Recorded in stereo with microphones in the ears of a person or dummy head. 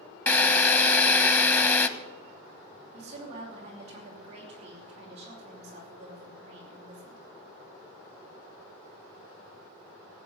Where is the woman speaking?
35° right (ahead or behind), 4.5 m.